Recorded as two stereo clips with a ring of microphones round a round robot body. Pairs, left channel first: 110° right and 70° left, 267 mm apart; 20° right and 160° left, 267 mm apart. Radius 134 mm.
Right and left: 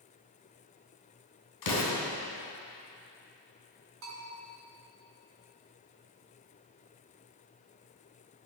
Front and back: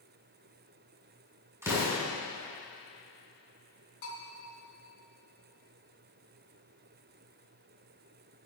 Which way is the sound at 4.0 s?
25° left.